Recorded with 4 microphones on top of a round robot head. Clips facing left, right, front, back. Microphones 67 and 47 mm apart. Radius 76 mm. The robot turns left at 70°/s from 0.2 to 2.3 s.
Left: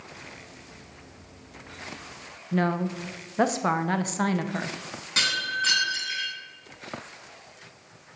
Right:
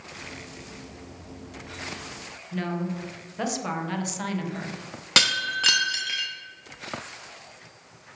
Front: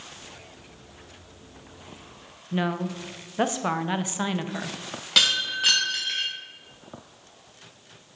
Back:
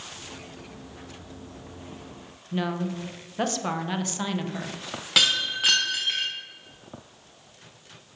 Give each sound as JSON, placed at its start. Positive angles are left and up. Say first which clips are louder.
{"t": 2.5, "sound": "a woman speaking", "louder": "left 4 dB, front 1 dB", "azimuth_deg": 65, "distance_m": 0.5}
{"t": 5.2, "sound": "breaking glass", "louder": "right 2 dB, even", "azimuth_deg": -95, "distance_m": 0.8}